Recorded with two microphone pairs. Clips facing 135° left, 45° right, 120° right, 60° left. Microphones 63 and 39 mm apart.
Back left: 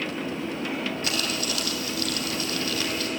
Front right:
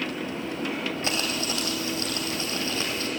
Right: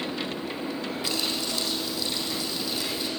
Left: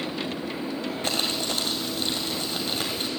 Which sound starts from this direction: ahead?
Crumpling, at 1.0 s.